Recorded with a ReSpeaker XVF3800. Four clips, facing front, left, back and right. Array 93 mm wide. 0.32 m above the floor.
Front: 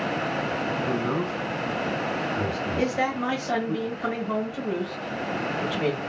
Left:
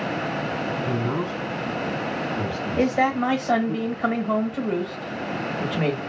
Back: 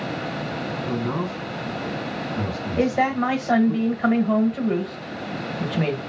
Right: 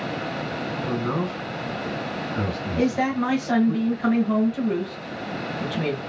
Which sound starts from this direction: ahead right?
A man speaking, at 0.8 s.